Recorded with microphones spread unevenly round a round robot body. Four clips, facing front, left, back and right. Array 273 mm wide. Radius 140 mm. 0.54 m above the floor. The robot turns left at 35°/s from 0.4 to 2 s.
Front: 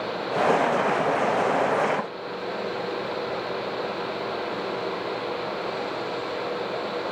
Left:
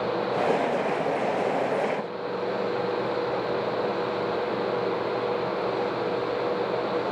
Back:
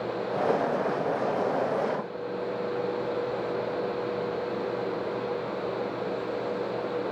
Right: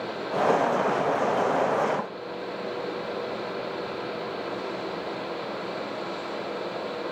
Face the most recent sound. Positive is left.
No sound to turn to.